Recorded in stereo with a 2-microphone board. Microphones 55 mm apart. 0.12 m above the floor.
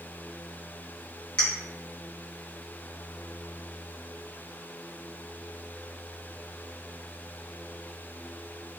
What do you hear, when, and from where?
1.4 s a clink: 20° left (ahead or behind), 1.1 m